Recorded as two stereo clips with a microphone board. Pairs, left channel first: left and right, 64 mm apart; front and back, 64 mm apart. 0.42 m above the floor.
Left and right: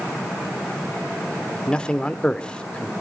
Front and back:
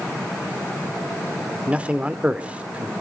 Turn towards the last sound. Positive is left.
turn(degrees=140)